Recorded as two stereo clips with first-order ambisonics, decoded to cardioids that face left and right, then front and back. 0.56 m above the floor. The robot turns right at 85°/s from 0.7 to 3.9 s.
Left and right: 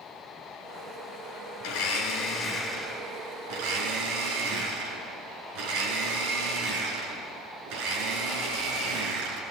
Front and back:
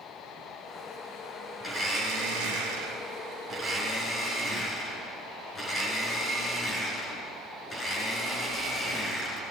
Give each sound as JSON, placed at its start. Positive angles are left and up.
{"t": 1.6, "sound": "a blender", "azimuth_deg": 95, "distance_m": 5.0}